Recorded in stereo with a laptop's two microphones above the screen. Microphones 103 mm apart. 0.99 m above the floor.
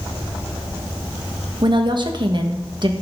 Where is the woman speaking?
45° right (ahead or behind), 1.2 m.